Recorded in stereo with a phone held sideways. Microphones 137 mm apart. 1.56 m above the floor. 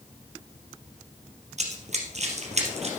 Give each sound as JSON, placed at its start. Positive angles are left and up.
{"t": 1.6, "sound": "running footsteps", "side_deg": -55, "distance_m": 2.5}